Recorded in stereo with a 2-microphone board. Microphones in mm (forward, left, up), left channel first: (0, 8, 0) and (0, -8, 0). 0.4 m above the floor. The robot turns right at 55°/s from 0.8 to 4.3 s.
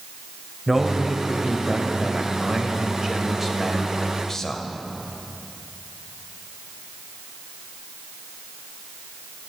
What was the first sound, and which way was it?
A man speaking, 165° right.